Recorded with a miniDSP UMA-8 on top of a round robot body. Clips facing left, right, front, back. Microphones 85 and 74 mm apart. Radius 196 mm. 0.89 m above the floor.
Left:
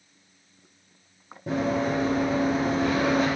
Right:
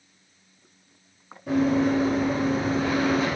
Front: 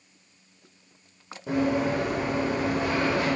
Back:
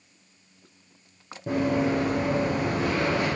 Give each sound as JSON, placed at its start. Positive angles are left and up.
{"t": 1.5, "sound": "running footsteps", "azimuth_deg": 135, "distance_m": 1.4}